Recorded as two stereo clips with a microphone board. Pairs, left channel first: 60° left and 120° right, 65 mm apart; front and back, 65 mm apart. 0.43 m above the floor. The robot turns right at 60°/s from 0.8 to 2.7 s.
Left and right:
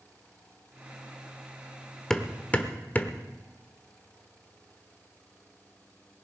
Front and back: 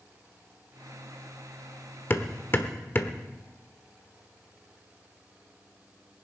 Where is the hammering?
15° right, 1.0 m; by 3.2 s 20° left, 1.0 m.